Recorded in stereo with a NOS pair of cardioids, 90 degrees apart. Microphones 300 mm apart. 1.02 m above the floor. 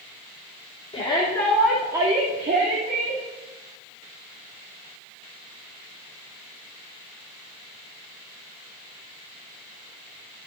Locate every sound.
0.9 s a shout: 20° left, 2.5 m; by 3.2 s 50° right, 2.5 m